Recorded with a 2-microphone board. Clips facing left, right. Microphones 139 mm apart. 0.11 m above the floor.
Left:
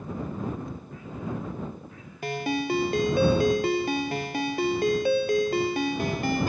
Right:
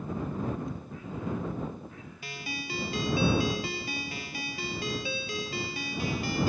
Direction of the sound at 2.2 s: 60° left (ahead or behind).